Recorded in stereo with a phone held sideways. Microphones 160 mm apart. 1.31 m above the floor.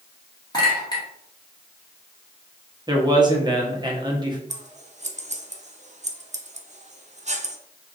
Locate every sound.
0.5 s a clink: 25° left (ahead or behind), 1.8 m
2.9 s a man speaking: 25° right (ahead or behind), 1.1 m
4.5 s scissors: 45° right (ahead or behind), 0.6 m